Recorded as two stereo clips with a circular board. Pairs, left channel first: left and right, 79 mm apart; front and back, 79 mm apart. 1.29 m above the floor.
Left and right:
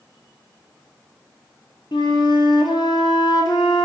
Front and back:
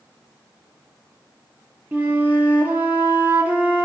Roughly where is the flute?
Behind left.